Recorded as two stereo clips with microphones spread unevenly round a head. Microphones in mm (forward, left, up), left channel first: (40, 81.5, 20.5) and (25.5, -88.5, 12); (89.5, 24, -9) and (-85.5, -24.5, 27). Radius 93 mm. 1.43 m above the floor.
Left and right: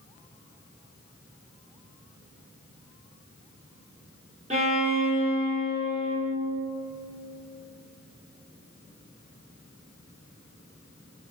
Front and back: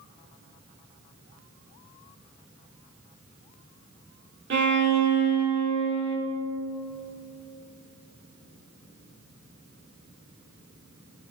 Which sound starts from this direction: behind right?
A violin, at 4.5 s.